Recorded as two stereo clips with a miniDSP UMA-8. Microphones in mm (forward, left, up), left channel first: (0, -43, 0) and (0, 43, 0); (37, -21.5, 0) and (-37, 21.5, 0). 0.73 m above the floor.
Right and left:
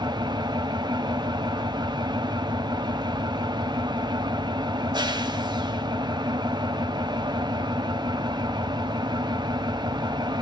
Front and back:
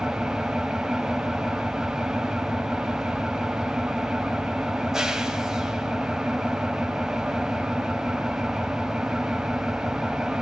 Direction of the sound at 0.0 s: 65° left.